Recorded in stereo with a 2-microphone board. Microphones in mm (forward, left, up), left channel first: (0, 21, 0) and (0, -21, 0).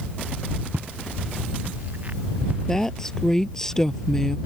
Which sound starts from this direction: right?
Footsteps, at 0.7 s.